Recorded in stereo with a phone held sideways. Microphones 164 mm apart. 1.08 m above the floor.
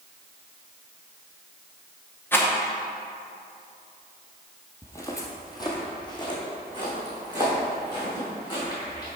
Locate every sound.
2.3 s a rattle: 15° left (ahead or behind), 0.9 m
4.8 s footsteps: 15° left (ahead or behind), 1.2 m; by 9.1 s 30° left (ahead or behind), 5 m